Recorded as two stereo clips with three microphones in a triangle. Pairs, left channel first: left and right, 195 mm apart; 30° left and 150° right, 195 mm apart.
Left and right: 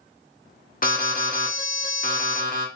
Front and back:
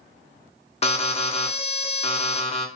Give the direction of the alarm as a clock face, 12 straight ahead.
10 o'clock.